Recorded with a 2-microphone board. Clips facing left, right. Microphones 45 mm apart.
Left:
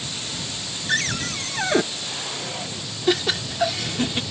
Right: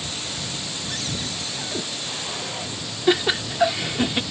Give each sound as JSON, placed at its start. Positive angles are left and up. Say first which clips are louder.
{"t": 0.9, "sound": "a cupboard door", "louder": "left 9 dB", "side_deg": 55}
{"t": 3.1, "sound": "laughter", "louder": "right 2 dB", "side_deg": -15}